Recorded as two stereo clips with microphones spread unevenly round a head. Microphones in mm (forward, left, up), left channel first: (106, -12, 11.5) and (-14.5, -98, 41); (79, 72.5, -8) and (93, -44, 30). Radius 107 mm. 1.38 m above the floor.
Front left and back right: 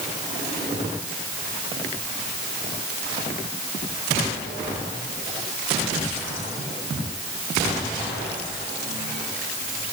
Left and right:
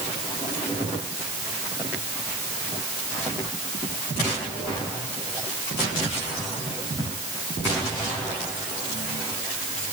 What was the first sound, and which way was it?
Only background noise.